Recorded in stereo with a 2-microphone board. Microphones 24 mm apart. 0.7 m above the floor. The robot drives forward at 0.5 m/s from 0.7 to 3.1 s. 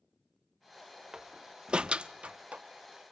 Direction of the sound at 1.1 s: 30° right (ahead or behind).